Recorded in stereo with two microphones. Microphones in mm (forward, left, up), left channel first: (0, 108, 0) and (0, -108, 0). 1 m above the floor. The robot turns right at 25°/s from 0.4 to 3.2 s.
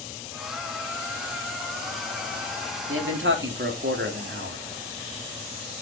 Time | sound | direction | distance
2.9 | a man speaking | 70° right (ahead or behind) | 2.5 m